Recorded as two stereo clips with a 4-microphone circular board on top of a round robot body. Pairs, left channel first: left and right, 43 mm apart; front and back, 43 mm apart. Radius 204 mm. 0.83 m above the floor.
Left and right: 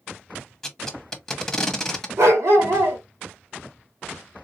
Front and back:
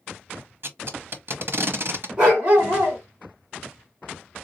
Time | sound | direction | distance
0.6 | tape being pulled | 170° left | 1.4 m
2.2 | a dog barking | 115° right | 1.3 m